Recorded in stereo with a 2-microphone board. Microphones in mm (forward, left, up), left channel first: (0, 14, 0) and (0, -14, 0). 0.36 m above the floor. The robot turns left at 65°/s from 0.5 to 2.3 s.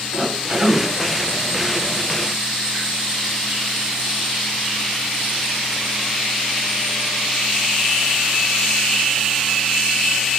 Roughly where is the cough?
Right.